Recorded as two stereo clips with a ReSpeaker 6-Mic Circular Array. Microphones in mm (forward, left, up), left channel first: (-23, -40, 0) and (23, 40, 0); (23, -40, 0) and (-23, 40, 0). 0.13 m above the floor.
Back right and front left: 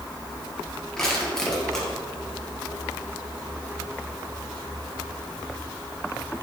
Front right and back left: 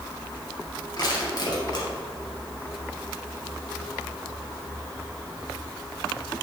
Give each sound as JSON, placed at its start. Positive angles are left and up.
{"t": 1.0, "sound": "crushing", "azimuth_deg": -35, "distance_m": 3.0}